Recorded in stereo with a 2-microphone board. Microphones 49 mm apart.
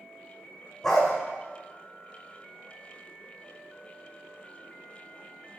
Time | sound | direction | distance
0.8 | a dog barking | centre (ahead or behind) | 2.0 m